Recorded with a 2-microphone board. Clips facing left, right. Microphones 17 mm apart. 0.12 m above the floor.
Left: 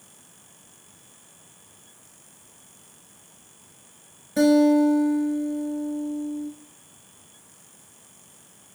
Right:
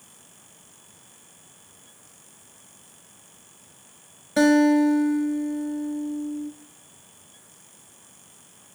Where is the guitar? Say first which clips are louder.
Even; 30° right (ahead or behind), 0.6 m.